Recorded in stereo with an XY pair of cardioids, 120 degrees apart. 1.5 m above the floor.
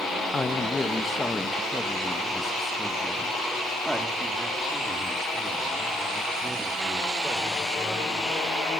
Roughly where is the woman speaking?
Ahead left.